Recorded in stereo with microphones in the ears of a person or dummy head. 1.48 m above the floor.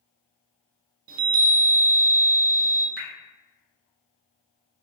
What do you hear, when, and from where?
1.1 s a chime: 45° right (ahead or behind), 0.5 m
3.0 s dripping: 50° right (ahead or behind), 0.6 m